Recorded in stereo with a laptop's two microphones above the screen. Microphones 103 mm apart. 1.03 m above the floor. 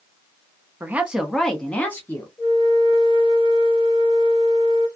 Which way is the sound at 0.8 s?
20° right (ahead or behind).